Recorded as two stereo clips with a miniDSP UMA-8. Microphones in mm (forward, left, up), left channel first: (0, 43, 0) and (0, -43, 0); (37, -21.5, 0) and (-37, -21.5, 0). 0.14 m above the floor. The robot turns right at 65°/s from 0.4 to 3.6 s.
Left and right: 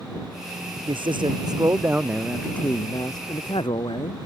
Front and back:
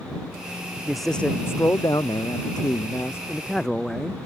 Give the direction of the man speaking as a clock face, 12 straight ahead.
3 o'clock.